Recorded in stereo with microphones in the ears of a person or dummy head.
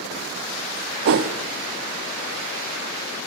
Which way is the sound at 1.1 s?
60° right (ahead or behind).